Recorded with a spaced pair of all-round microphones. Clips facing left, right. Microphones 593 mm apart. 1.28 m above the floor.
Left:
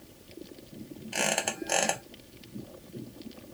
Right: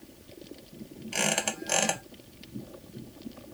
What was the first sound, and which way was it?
A squeak, 35° right (ahead or behind).